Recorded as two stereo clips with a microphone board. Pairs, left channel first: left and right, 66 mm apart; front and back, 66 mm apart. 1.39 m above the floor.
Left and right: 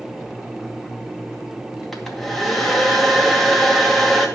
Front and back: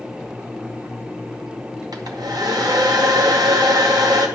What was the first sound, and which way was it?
A hair dryer, 175° left.